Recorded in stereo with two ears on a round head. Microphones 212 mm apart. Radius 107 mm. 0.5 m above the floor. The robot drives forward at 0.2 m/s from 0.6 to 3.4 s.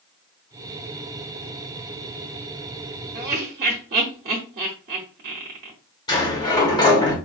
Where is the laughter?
45° right (ahead or behind), 1.0 m.